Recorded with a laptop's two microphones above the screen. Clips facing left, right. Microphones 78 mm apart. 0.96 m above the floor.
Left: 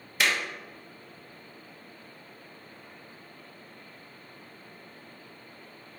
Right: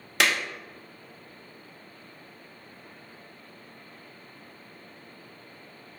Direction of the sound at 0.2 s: 80° right.